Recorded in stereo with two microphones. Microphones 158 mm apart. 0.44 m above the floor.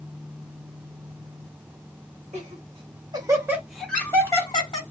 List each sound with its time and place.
2.3 s laughter: 45° right (ahead or behind), 1.4 m; by 4.8 s 35° left (ahead or behind), 1.1 m